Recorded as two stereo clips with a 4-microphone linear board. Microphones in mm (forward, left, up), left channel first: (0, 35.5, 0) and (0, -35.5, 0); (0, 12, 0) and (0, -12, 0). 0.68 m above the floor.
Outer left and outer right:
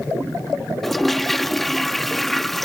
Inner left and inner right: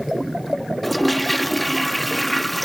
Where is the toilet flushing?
5° left (ahead or behind).